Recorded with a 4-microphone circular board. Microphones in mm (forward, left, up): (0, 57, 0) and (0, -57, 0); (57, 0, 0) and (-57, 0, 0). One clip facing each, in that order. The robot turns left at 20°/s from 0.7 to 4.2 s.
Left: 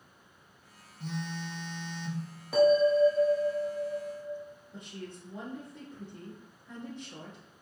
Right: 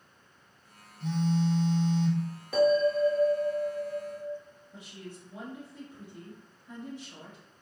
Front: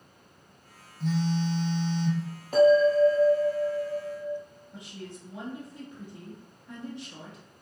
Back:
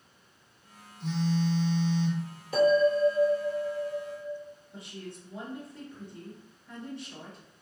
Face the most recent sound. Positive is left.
turn(degrees=-35)